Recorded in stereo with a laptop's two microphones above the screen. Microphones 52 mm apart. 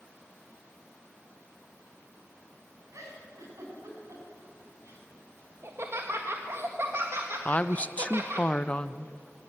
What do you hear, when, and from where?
2.9 s a giggle: 85° right, 6 m
5.6 s laughter: 55° right (ahead or behind), 1.5 m
7.5 s a woman speaking: 25° left (ahead or behind), 0.6 m